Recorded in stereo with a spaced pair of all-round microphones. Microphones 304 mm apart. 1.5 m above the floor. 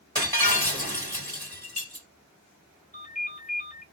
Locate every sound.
0.1 s breaking glass: 30° right (ahead or behind), 2 m
2.9 s a ringtone: 25° left (ahead or behind), 1.2 m